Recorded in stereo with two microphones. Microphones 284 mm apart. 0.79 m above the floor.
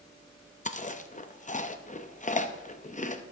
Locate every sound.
0.7 s chewing: 25° left (ahead or behind), 0.6 m